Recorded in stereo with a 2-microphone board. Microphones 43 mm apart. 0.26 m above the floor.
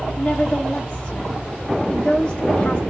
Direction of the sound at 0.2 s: 20° left (ahead or behind).